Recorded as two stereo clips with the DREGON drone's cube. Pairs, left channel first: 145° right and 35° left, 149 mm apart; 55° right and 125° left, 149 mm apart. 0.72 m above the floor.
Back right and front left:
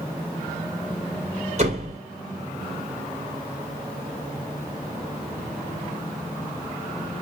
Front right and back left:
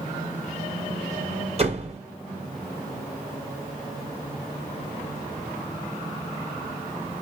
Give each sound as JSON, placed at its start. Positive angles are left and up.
{"t": 1.6, "sound": "a door slam", "azimuth_deg": 75, "distance_m": 3.0}